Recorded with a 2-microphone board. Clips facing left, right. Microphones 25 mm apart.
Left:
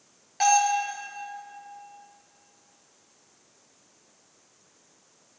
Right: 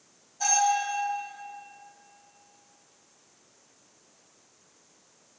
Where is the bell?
65° left (ahead or behind), 4 m.